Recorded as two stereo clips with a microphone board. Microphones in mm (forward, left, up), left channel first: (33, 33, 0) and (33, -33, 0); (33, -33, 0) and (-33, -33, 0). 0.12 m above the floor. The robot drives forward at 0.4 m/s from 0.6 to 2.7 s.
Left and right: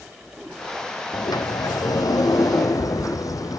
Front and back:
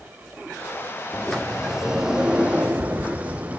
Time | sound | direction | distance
1.1 | a sliding door | 85° left | 1.2 m